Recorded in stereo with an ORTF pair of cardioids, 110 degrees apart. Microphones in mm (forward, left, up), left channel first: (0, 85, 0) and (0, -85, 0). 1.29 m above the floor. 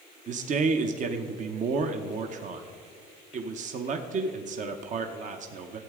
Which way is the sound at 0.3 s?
45° right.